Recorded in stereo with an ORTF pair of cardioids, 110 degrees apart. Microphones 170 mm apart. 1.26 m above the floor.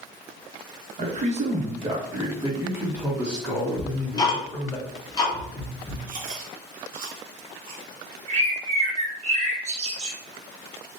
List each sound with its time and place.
1.0 s a man speaking: 50° right, 1.6 m; by 4.8 s 10° left, 2.5 m
3.8 s ticking: 20° left, 1.6 m
6.1 s chewing: 55° right, 1.5 m
8.3 s a bird: 40° right, 1.8 m